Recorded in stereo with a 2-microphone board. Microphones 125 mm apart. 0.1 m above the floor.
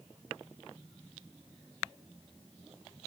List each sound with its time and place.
Only background noise.